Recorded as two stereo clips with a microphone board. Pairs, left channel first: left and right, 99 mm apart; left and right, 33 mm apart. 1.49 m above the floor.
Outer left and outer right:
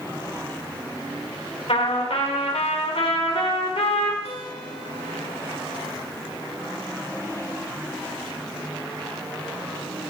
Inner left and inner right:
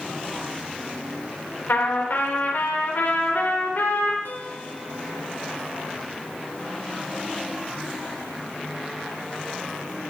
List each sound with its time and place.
1.7 s a trumpet: 75° left (ahead or behind), 6 m
4.2 s a guitar: 80° left, 8 m